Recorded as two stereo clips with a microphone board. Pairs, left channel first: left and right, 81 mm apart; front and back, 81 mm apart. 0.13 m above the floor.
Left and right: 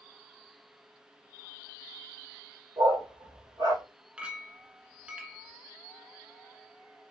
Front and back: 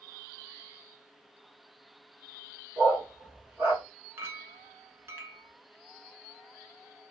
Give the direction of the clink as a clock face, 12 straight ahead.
5 o'clock.